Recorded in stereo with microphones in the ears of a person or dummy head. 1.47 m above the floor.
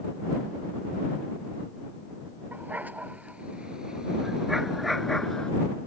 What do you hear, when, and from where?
2.5 s a dog barking: 10° right (ahead or behind); by 5.5 s 5° left (ahead or behind)